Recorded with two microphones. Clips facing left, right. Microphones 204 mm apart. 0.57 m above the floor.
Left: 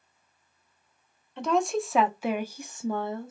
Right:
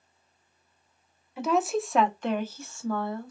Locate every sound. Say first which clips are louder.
1.4 s a woman speaking: even; 5° right (ahead or behind), 0.8 m; by 3.3 s 25° left (ahead or behind), 0.7 m